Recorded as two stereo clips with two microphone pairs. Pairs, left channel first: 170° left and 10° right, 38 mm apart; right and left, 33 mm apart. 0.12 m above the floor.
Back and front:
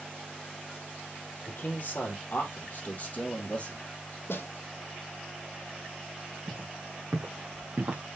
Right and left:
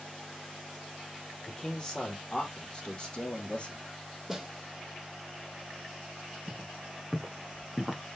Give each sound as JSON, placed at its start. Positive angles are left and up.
{"t": 1.5, "sound": "a man speaking", "azimuth_deg": -160, "distance_m": 4.0}
{"t": 4.3, "sound": "a snare drum", "azimuth_deg": 170, "distance_m": 1.3}
{"t": 6.5, "sound": "footsteps", "azimuth_deg": 20, "distance_m": 4.5}